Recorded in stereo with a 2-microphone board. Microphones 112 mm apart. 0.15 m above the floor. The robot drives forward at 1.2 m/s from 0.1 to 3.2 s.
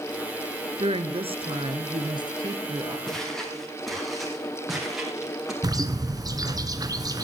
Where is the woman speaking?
55° right (ahead or behind), 1.8 m; by 3.0 s 30° right (ahead or behind), 3 m.